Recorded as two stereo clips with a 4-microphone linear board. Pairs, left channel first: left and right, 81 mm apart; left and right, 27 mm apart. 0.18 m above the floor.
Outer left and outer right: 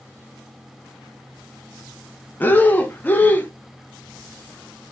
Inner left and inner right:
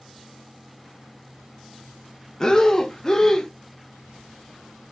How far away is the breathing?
About 0.7 m.